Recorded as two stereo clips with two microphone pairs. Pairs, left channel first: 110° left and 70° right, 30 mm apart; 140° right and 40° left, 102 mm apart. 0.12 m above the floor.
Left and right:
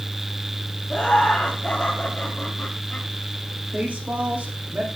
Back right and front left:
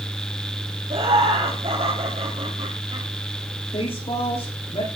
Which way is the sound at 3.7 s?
105° right.